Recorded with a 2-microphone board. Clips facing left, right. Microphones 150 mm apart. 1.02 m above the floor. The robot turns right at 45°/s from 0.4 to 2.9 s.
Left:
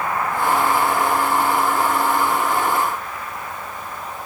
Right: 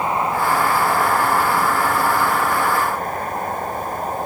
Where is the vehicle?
155° right; by 4.3 s 45° right.